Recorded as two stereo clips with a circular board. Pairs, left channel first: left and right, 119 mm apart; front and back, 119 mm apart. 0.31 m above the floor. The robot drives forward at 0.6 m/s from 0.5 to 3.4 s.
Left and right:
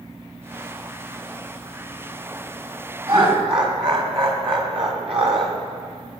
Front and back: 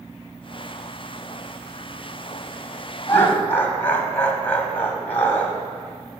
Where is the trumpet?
I don't hear a trumpet.